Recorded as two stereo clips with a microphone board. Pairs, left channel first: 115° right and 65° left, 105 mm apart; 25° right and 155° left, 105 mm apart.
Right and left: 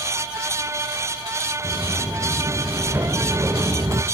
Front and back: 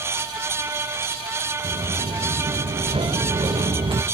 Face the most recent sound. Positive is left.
turn(degrees=125)